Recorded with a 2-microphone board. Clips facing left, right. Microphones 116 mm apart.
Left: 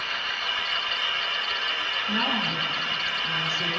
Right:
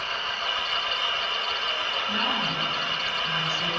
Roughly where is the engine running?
Right.